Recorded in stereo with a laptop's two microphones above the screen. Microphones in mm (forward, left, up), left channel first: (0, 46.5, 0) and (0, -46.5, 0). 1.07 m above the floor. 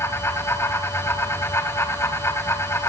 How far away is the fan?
About 3 m.